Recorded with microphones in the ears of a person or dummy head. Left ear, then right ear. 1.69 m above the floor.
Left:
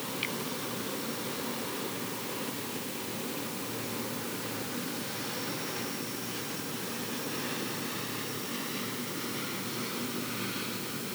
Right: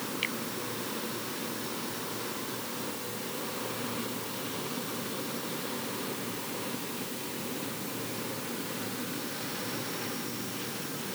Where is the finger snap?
25° right (ahead or behind).